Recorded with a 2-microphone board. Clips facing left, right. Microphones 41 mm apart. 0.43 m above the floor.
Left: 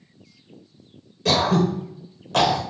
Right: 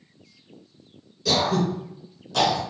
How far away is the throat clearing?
About 0.8 m.